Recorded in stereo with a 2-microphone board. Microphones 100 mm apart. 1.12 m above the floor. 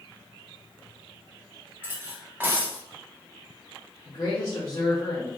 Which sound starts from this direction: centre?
Cutlery clinking, at 1.8 s.